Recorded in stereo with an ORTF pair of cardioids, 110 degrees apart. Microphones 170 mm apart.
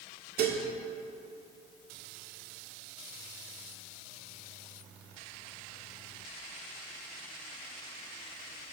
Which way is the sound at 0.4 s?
65° right.